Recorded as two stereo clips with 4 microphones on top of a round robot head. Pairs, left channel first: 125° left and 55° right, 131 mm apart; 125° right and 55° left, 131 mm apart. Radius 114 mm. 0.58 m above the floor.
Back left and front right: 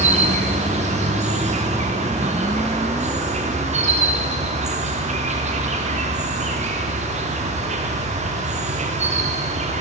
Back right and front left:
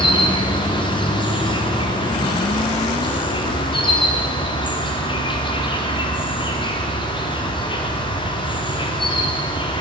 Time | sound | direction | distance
0.0 | an insect | 75° right | 1.2 m